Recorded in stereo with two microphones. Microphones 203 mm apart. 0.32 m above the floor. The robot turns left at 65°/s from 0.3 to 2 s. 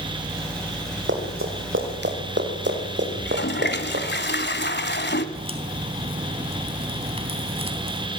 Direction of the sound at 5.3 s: 30° right (ahead or behind).